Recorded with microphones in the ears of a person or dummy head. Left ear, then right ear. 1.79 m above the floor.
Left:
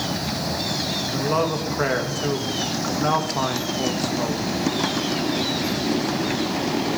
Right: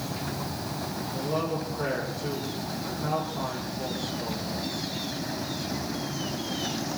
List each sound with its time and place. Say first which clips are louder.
1.1 s a man speaking: left 6 dB; 70° left (ahead or behind), 2.5 m